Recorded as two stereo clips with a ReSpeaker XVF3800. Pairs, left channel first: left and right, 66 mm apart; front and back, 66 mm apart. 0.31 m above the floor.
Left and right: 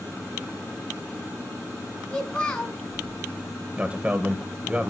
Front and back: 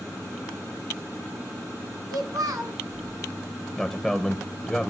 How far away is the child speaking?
About 2 m.